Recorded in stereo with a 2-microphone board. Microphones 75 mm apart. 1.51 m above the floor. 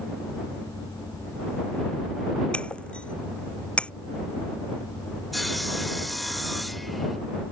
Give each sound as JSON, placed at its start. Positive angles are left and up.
{"t": 2.5, "sound": "breaking glass", "side_deg": 15}
{"t": 5.3, "sound": "sawing", "side_deg": 0}